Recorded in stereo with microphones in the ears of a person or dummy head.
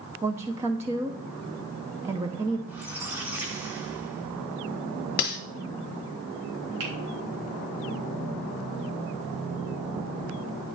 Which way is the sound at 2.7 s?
10° right (ahead or behind).